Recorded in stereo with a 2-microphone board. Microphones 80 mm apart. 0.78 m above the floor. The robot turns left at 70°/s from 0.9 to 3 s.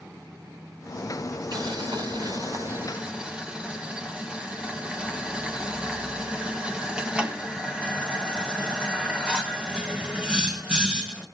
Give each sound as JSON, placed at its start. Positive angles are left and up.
{"t": 1.5, "sound": "boiling", "side_deg": -60, "distance_m": 2.5}